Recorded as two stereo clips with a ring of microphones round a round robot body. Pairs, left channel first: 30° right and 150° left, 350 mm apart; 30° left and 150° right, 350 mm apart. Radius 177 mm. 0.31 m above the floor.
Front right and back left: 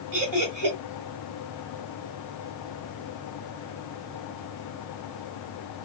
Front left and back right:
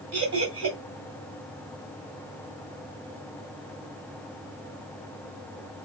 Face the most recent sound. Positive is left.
turn(degrees=170)